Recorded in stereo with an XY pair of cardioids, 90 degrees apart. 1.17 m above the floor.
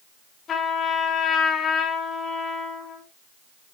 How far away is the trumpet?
About 6 m.